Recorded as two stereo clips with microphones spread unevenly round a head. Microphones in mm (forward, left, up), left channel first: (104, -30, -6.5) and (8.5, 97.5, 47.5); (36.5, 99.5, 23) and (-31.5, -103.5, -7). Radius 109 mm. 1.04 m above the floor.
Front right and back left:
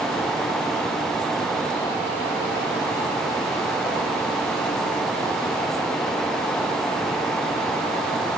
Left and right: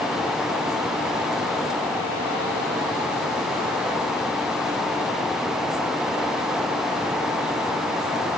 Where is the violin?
No violin in this recording.